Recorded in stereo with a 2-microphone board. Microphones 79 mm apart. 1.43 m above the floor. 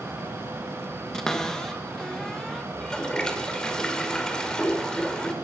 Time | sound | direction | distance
1.1 | a cupboard door | 5° left (ahead or behind) | 1.7 m
2.8 | a toilet flushing | 10° left (ahead or behind) | 2 m